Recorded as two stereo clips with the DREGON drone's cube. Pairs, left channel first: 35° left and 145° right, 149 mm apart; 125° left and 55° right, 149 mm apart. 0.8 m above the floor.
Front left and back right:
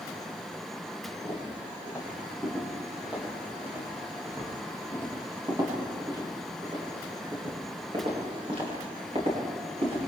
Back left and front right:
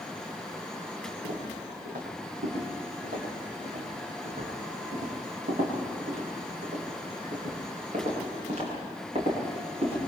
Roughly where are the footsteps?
Ahead right.